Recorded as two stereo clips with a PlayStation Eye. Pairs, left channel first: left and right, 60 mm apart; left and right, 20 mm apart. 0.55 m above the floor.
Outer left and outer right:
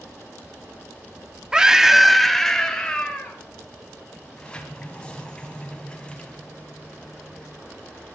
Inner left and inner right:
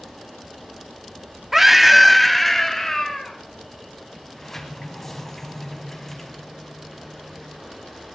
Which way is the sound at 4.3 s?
15° left (ahead or behind).